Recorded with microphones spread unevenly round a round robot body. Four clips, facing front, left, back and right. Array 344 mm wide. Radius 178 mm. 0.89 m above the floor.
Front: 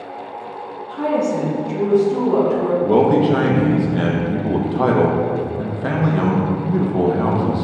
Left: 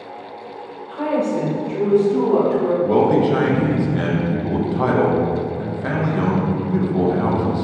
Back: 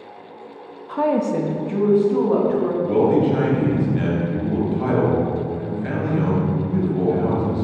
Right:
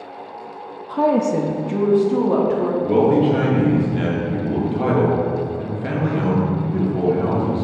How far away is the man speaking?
About 1.3 m.